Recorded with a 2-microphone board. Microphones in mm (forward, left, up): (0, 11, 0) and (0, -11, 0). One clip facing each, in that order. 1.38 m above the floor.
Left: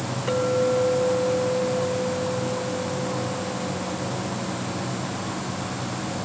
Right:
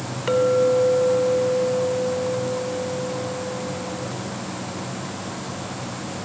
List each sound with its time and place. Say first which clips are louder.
0.3 s a clink: right 4 dB; 35° right (ahead or behind), 2.5 m